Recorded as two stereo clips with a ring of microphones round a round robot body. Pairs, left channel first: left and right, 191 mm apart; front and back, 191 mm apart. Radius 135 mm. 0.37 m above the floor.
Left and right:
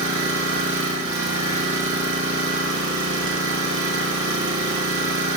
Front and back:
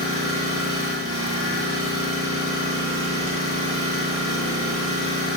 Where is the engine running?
115° right, 1.0 m.